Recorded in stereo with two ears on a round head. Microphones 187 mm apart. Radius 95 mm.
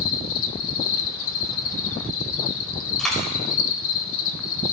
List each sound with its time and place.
0.0 s an insect: 70° left (ahead or behind), 1.1 m
3.0 s a dropped coin: centre (ahead or behind), 4 m